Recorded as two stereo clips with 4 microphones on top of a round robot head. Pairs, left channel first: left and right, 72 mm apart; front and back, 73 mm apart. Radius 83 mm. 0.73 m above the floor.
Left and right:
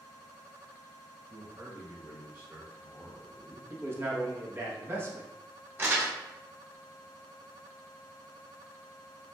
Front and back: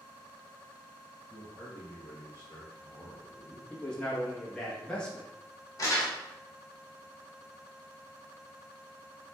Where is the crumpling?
35° right, 1.5 m.